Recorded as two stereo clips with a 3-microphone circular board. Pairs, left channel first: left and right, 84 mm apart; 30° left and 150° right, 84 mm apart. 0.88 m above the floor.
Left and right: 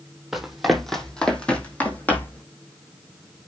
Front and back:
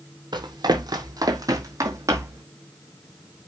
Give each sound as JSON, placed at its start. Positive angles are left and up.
{"t": 0.3, "sound": "running footsteps", "azimuth_deg": -175, "distance_m": 2.5}